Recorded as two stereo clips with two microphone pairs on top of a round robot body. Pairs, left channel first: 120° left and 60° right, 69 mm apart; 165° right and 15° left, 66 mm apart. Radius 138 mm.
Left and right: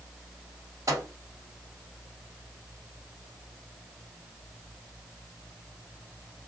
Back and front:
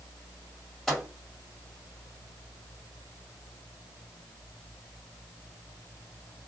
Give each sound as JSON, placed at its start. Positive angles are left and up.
{"t": 0.9, "sound": "a microwave", "azimuth_deg": -80, "distance_m": 1.8}